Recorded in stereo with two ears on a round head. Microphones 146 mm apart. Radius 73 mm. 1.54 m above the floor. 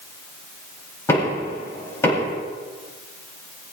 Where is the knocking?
15° left (ahead or behind), 8 m.